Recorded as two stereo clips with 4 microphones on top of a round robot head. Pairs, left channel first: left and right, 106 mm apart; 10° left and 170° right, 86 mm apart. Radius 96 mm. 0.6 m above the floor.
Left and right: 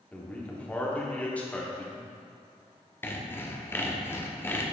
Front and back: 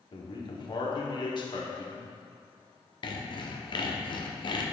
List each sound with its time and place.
0.1 s a man speaking: 15° left, 1.8 m
3.0 s sawing: 25° left, 1.0 m